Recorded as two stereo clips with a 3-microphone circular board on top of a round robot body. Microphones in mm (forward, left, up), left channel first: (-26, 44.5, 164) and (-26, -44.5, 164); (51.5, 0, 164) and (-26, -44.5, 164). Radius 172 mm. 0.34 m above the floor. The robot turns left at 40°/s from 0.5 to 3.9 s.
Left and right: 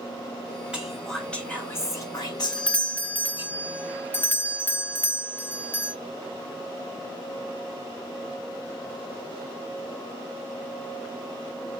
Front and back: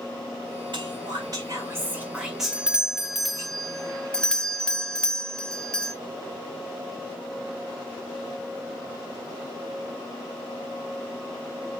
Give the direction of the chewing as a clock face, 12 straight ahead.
No chewing in this recording.